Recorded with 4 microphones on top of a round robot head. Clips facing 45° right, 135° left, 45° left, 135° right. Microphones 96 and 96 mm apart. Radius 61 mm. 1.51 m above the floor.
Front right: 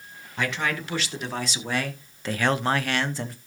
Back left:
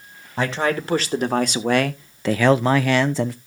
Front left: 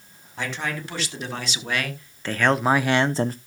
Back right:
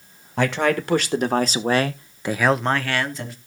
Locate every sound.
0.4 s a man speaking: 170° right, 1.8 m; by 3.4 s 100° left, 0.9 m